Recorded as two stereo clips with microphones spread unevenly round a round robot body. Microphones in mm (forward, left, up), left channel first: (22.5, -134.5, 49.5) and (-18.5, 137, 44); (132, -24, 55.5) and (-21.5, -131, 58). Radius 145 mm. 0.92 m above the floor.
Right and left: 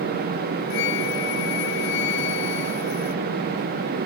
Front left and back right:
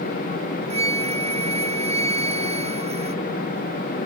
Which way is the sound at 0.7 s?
90° right.